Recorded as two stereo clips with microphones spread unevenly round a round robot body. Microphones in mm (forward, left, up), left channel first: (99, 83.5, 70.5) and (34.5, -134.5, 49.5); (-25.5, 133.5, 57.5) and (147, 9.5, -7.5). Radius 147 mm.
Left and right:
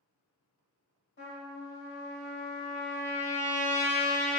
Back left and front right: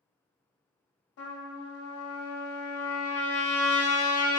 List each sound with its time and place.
1.2 s a trumpet: 120° left, 0.5 m